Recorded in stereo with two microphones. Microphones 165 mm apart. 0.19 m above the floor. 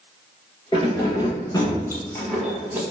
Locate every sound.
0.7 s keys jangling: 30° left (ahead or behind), 2.0 m; by 2.8 s 15° right (ahead or behind), 0.8 m